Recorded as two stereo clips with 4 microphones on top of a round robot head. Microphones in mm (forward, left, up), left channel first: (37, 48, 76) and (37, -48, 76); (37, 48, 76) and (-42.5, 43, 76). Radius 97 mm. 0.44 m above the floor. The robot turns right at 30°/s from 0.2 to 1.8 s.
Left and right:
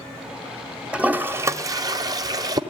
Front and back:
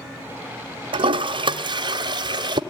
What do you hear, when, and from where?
0.9 s a toilet flushing: 170° right, 0.7 m; by 2.6 s 145° right, 0.7 m